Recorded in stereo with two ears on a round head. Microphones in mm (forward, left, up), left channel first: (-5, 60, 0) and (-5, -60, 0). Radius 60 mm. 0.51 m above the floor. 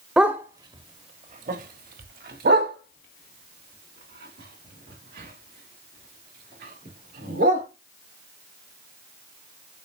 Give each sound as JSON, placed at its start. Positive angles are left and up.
{"t": 0.2, "sound": "a dog barking", "side_deg": -5, "distance_m": 0.7}